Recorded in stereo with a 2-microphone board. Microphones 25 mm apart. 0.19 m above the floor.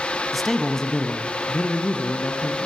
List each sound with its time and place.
0.3 s a man speaking: centre (ahead or behind), 1.3 m; by 2.7 s 65° left (ahead or behind), 3 m